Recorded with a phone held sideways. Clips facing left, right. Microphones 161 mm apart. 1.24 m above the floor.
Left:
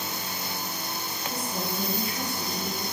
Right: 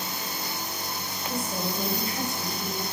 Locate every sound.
1.3 s a woman speaking: 60° right (ahead or behind), 7 m